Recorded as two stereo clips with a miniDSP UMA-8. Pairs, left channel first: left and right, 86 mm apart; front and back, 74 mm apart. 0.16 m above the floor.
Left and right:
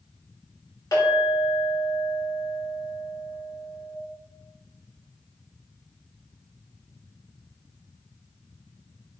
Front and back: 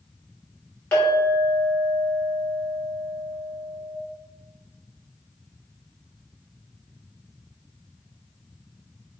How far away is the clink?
About 1.6 m.